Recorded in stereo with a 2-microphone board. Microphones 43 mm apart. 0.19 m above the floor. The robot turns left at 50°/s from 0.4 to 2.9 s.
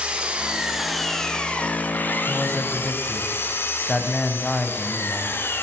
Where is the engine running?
155° right, 1.7 m; by 5.6 s 80° left, 1.7 m.